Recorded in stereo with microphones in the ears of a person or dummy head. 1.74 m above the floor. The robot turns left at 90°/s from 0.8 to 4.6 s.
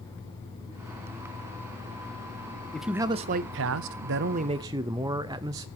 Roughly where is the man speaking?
Ahead.